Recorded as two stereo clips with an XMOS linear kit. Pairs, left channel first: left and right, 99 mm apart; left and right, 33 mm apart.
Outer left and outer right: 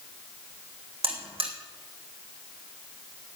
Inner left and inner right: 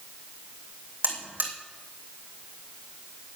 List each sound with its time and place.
1.0 s a buzzer: 75° right (ahead or behind), 3 m